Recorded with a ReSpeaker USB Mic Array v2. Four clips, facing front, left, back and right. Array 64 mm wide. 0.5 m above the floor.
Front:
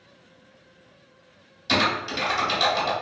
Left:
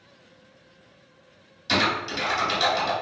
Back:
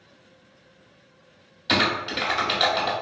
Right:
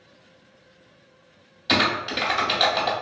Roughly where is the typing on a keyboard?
Behind right.